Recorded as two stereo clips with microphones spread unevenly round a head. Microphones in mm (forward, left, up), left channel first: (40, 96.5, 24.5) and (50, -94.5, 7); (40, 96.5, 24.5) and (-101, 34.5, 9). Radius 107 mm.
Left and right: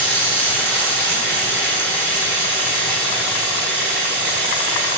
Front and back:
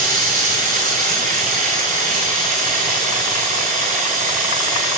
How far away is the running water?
About 7.5 m.